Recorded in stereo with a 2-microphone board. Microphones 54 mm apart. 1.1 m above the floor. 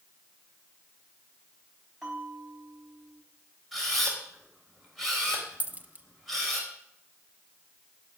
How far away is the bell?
About 5 m.